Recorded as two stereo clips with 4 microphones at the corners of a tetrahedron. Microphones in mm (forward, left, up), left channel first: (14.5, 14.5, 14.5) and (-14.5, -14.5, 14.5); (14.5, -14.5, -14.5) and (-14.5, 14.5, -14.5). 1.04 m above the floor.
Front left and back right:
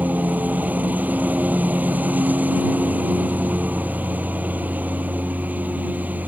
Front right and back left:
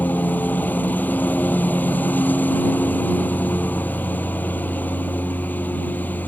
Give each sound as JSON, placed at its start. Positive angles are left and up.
{"t": 0.0, "sound": "a lawn mower", "azimuth_deg": -90}